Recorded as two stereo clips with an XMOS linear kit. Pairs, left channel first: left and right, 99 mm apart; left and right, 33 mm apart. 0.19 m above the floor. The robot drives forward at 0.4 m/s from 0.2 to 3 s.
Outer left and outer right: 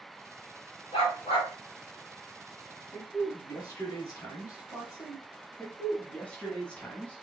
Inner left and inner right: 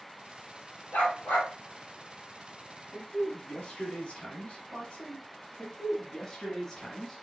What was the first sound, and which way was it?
A dog barking, 75° left (ahead or behind).